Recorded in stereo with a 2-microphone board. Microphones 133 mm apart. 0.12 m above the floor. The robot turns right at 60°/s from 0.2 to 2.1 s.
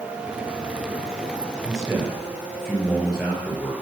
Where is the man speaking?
25° right (ahead or behind), 2.5 m; by 3.7 s 5° right (ahead or behind), 2.5 m.